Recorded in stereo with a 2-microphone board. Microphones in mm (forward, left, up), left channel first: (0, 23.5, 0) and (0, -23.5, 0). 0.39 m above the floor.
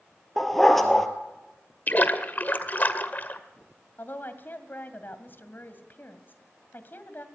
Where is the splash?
40° left (ahead or behind), 1.7 m.